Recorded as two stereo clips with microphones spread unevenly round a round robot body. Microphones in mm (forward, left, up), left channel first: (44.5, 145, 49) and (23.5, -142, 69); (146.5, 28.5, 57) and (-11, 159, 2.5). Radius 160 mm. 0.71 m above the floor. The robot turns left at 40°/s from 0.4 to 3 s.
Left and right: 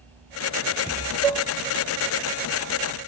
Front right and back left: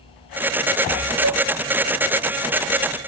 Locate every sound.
1.2 s dishes clattering: 170° left, 1.8 m; by 1.4 s 160° left, 1.8 m